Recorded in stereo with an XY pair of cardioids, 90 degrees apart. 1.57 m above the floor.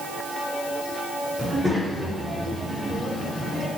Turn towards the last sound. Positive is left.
turn(degrees=-10)